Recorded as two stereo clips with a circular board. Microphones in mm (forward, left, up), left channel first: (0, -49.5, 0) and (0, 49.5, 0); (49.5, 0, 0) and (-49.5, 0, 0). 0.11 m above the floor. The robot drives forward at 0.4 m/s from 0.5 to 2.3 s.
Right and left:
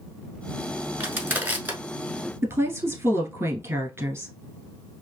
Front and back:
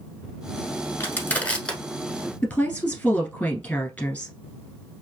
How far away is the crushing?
About 1.1 m.